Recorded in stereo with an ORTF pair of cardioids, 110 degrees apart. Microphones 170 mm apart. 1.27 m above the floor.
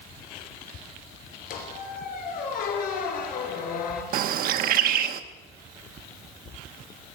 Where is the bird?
65° right, 0.7 m.